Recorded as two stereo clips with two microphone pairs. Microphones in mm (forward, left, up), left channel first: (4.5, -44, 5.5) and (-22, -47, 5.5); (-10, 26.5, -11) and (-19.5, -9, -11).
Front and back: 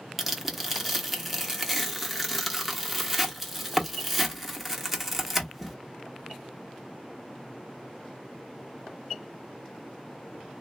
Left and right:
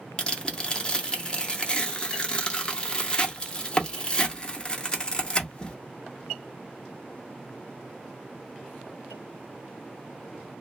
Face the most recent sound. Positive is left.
turn(degrees=115)